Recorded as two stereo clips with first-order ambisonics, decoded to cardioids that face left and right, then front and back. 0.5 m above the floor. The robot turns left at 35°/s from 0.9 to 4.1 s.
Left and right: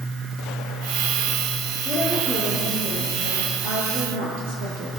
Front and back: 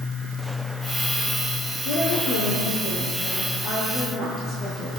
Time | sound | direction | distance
1.9 | a woman speaking | 10° left | 7.5 m